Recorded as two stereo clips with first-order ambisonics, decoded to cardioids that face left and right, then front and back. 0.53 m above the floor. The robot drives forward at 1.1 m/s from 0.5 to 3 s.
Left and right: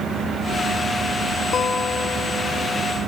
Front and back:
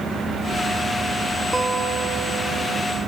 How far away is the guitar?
About 1.0 m.